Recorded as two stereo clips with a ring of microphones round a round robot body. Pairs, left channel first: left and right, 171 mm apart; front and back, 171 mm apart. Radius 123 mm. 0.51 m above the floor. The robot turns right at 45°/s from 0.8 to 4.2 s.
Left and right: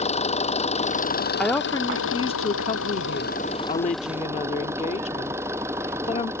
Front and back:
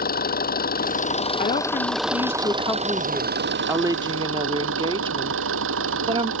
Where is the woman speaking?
5° left; by 6.3 s 130° left.